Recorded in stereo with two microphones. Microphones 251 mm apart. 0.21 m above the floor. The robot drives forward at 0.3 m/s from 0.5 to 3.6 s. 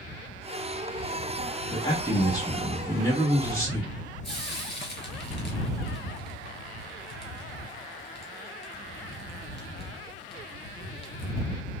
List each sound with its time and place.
1.7 s a man speaking: 15° left (ahead or behind), 1.4 m; by 3.9 s 10° left (ahead or behind), 1.7 m
4.2 s frying: 25° right (ahead or behind), 1.4 m